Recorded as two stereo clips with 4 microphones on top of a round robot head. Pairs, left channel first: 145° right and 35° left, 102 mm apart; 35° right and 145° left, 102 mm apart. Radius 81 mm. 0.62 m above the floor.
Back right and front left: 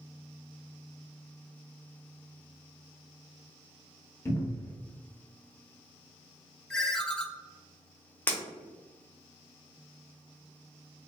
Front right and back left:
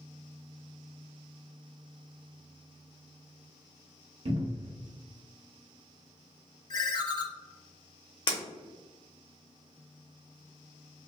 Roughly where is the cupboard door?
Behind left.